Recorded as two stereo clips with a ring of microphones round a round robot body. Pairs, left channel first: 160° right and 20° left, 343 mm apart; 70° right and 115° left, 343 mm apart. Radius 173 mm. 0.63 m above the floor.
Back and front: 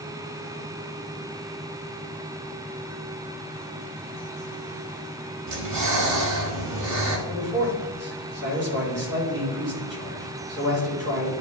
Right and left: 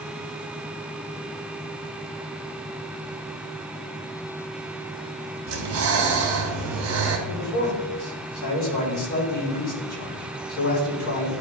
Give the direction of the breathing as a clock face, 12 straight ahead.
10 o'clock.